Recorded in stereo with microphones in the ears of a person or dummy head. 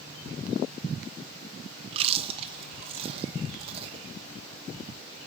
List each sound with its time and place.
1.9 s chewing: 40° right (ahead or behind), 1.1 m